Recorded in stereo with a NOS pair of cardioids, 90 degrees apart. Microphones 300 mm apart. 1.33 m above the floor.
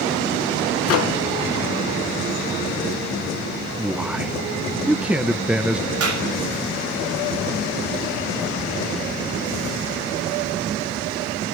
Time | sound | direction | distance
0.9 | a microwave | 55° left | 0.7 m
3.8 | a man speaking | 5° right | 1.0 m
6.0 | a clap | 60° right | 6.5 m